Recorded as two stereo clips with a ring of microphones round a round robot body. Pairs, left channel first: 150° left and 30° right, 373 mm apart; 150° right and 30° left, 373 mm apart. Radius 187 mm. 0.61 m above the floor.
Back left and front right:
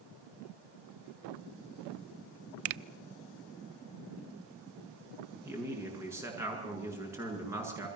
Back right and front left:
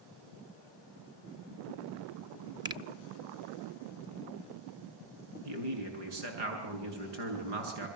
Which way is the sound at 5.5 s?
55° left.